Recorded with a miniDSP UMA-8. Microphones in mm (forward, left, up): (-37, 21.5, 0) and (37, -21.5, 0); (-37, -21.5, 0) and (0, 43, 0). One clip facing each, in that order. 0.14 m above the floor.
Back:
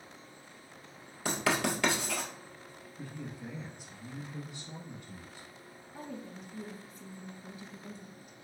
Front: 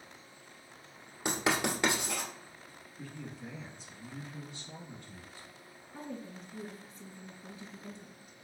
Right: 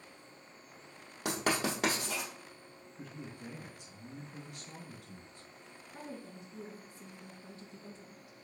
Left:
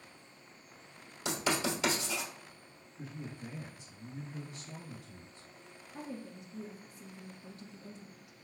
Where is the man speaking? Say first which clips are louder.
Back 2 dB, left 2 dB; 130° right, 2.5 m.